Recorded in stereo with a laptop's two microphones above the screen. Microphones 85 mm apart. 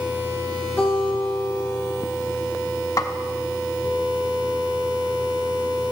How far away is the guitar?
About 2.5 m.